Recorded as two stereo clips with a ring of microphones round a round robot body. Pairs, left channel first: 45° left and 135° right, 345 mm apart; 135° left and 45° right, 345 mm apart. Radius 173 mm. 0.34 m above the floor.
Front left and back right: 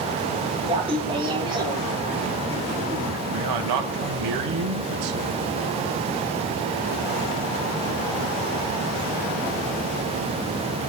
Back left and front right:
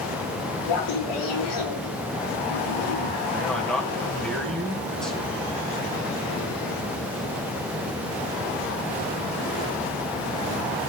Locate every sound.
0.7 s laughter: 150° left, 8 m; by 3.2 s 140° left, 8.5 m
3.3 s a man speaking: 135° right, 3 m